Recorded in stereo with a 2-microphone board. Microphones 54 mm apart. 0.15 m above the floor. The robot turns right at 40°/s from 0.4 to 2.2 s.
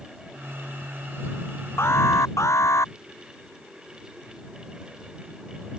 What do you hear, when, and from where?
1.8 s an alarm: 55° left (ahead or behind); by 2.9 s 70° left (ahead or behind)